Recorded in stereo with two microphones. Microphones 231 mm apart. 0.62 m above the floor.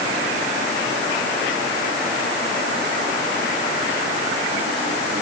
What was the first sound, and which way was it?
Only background noise.